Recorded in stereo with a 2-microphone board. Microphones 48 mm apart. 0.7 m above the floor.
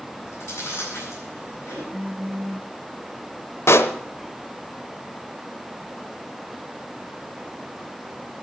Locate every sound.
0.1 s chewing: 65° left (ahead or behind), 7 m
1.9 s a phone buzzing: 65° right (ahead or behind), 2 m
3.7 s a pop: 65° left (ahead or behind), 0.9 m